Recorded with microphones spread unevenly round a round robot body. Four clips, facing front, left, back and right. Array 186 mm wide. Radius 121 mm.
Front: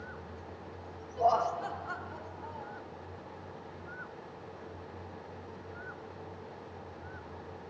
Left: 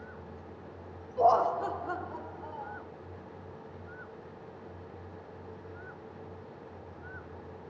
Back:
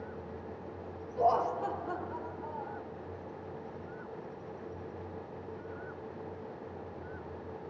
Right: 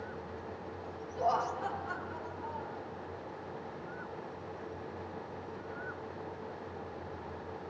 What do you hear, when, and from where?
1.2 s laughter: 90° left, 0.8 m; by 2.8 s 150° left, 1.7 m